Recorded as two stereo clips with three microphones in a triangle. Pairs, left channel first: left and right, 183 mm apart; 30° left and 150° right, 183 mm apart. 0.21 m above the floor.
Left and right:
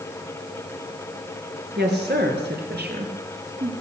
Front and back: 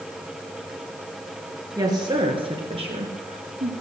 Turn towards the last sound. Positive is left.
turn(degrees=-110)